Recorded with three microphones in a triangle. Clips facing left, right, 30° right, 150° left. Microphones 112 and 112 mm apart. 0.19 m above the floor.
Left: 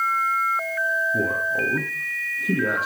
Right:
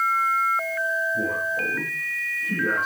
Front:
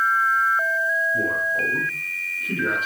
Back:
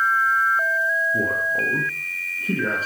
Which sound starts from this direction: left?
A man speaking, at 1.1 s.